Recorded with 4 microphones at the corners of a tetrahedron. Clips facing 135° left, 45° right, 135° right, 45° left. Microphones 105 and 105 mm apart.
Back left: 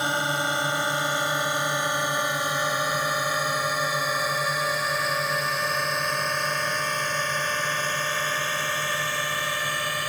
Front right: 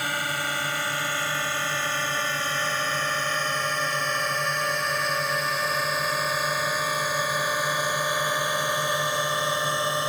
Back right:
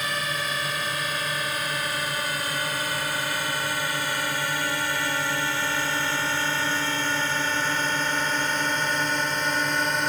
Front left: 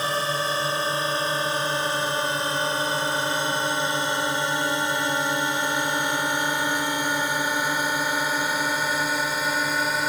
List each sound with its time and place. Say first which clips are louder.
0.0 s a drone: back left 3 dB, front left 4 dB; 80° left; by 10.1 s 35° right